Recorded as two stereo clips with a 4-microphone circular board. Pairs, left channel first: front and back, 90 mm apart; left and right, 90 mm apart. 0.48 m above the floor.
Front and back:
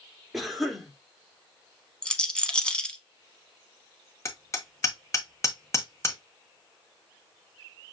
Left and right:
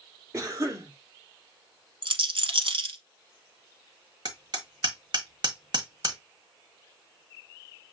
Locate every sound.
0.3 s a cough: 90° right, 1.4 m
2.0 s a rattle: 80° right, 0.9 m
4.2 s hammering: 55° right, 1.4 m